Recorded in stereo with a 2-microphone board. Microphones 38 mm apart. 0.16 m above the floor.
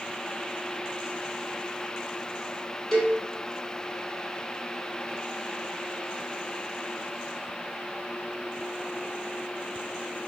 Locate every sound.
2.9 s a cowbell: 15° left (ahead or behind), 1.0 m